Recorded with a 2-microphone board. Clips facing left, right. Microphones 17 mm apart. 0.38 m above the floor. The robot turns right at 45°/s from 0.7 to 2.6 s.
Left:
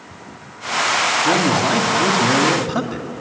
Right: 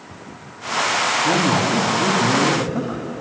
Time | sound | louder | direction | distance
1.2 | a man speaking | left 1 dB | 20° left | 2.5 m